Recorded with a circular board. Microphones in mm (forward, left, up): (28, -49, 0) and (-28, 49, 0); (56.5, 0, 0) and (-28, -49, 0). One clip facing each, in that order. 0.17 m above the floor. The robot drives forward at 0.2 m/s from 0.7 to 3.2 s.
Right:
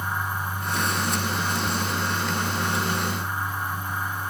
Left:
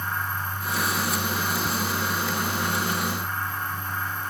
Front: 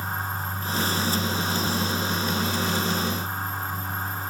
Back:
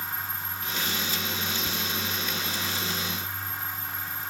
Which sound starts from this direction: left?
Ticking, at 1.6 s.